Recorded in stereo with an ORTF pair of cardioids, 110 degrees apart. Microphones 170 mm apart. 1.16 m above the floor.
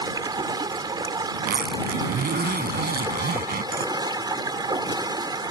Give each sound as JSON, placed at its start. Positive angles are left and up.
{"t": 0.0, "sound": "running water", "azimuth_deg": -25}
{"t": 1.3, "sound": "a zipper", "azimuth_deg": -70}